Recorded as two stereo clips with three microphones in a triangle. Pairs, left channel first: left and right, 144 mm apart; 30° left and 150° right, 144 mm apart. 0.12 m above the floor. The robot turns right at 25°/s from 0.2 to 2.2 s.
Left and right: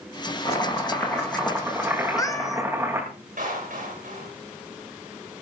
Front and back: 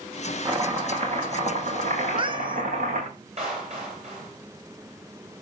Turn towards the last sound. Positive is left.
turn(degrees=-110)